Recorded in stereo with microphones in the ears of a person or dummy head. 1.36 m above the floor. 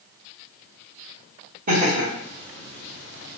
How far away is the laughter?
About 0.9 m.